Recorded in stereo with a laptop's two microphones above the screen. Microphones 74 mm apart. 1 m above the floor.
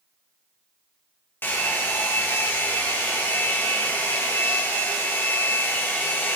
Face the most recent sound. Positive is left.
turn(degrees=30)  # may be behind; listen again after turning